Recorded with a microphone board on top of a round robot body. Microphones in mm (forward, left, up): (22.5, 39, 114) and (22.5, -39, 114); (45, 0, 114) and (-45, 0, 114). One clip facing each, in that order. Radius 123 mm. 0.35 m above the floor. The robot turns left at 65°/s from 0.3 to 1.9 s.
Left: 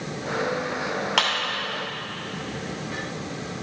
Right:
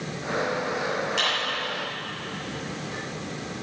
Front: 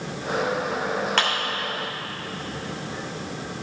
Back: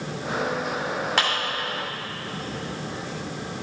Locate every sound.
1.2 s a clap: 100° left, 2.5 m; by 1.3 s 95° left, 2.5 m